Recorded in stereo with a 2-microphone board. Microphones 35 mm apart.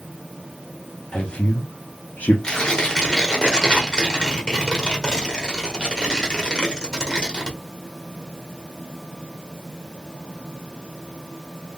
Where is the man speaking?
25° left (ahead or behind), 0.8 m; by 2.3 s 55° left (ahead or behind), 0.6 m.